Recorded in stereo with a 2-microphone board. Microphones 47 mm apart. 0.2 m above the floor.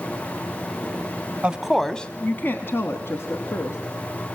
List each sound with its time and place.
1.4 s a woman speaking: 20° right (ahead or behind), 1.1 m; by 3.8 s 65° left (ahead or behind), 2.5 m